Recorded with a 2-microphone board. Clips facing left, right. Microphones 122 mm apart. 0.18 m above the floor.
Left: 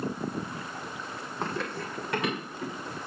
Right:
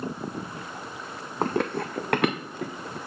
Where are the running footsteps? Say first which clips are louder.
Right 8 dB; 45° right (ahead or behind), 0.5 m; by 3.0 s 70° right (ahead or behind), 1.6 m.